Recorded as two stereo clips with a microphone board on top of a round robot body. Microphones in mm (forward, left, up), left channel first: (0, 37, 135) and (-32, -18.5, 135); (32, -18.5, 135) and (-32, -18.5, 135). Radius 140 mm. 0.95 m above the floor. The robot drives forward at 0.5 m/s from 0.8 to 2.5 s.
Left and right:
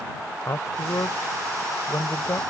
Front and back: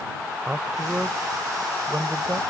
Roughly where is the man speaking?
Left.